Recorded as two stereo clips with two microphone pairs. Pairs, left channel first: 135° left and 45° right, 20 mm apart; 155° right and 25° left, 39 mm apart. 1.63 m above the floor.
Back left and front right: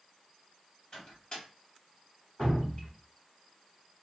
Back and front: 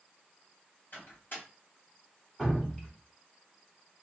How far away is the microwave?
About 1.6 m.